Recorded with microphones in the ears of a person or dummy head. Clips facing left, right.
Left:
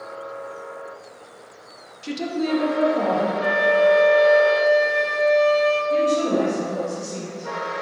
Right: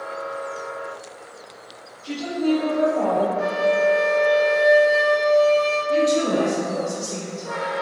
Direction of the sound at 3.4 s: 50° left (ahead or behind).